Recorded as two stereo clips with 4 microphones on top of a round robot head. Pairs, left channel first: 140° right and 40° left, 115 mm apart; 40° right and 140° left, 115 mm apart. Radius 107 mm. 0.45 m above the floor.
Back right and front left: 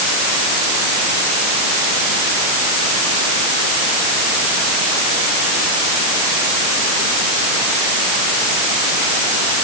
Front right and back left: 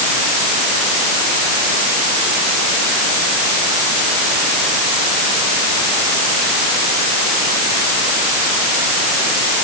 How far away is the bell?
I don't hear a bell.